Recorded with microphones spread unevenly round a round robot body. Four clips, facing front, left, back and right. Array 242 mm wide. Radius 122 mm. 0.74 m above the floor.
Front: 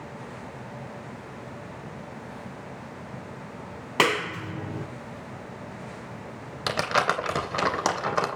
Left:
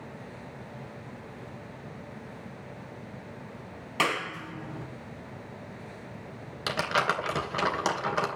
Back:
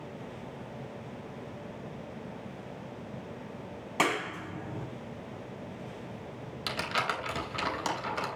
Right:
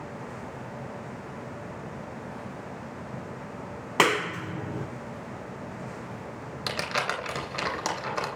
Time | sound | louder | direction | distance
4.0 | a clap | right 5 dB, front 5 dB | 45° right | 2.5 m
6.7 | crumpling | left 3 dB, front 8 dB | 10° left | 3 m